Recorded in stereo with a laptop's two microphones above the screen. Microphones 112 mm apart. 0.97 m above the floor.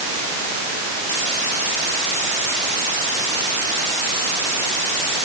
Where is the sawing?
I don't hear sawing.